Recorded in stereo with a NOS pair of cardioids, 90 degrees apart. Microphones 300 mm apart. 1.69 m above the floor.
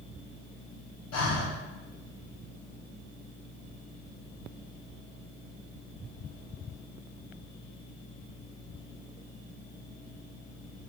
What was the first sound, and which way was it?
Breathing, 60° left.